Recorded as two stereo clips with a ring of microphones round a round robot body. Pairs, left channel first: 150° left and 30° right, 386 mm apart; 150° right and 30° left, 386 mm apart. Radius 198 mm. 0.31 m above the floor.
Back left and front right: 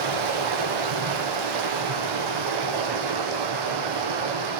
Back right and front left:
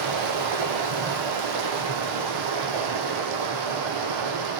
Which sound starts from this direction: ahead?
Running water, at 0.0 s.